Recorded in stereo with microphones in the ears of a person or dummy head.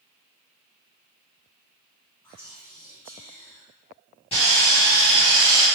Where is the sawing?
25° left (ahead or behind), 1.3 m.